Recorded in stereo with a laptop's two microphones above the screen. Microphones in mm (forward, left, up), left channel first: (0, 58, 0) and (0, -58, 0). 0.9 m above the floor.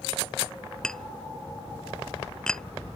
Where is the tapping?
5° left (ahead or behind).